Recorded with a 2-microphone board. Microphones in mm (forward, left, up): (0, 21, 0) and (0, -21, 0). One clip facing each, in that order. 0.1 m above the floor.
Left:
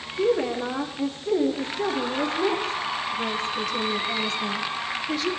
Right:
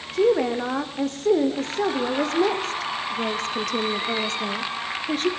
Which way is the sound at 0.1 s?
75° right (ahead or behind).